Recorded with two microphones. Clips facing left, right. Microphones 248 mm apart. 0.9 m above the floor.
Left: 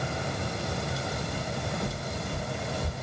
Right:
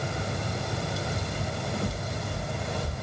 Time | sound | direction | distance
1.3 | footsteps | 15° right (ahead or behind) | 1.4 m